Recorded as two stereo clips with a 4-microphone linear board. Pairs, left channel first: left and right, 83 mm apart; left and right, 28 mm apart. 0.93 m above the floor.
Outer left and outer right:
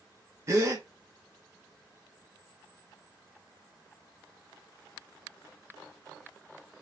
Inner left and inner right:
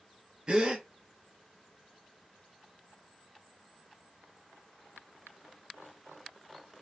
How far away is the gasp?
About 0.7 m.